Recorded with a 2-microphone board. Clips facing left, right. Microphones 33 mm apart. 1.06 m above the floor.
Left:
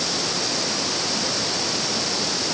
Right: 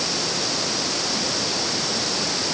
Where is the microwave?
No microwave in this recording.